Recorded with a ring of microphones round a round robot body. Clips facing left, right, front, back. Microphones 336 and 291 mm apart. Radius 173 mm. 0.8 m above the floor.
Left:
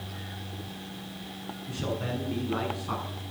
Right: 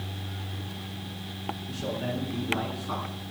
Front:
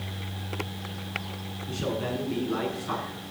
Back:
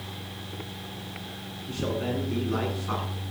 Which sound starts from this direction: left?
A man speaking, at 1.7 s.